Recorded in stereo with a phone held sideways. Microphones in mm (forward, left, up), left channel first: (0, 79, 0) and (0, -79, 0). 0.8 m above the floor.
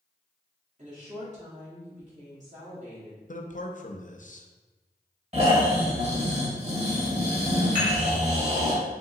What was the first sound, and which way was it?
A woman speaking, 45° right (ahead or behind).